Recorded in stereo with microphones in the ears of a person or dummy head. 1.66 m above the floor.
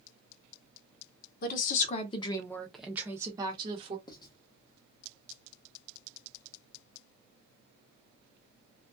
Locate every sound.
1.4 s a woman speaking: 50° left (ahead or behind), 0.8 m; by 4.0 s 30° right (ahead or behind), 1.1 m
4.1 s writing: 20° left (ahead or behind), 0.8 m